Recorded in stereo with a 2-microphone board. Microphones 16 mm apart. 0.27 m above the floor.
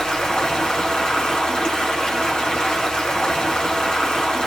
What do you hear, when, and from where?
0.0 s running water: 65° left (ahead or behind), 2 m